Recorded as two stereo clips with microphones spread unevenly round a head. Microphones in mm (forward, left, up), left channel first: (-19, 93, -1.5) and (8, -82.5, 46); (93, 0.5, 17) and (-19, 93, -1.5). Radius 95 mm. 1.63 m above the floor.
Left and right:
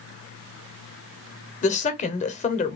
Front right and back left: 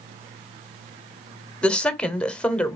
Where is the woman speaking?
40° left, 0.9 m.